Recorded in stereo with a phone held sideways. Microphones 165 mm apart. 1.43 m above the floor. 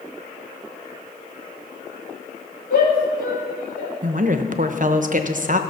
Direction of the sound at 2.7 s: 55° left (ahead or behind).